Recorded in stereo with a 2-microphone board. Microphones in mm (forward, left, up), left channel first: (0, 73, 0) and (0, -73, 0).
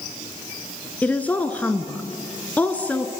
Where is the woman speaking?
10° left (ahead or behind), 1.6 m.